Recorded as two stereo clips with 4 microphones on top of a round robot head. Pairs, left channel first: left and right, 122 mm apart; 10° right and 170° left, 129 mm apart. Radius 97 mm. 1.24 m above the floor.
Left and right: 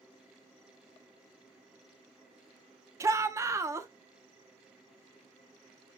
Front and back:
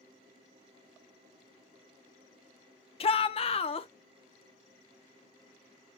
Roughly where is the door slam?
No door slam in this recording.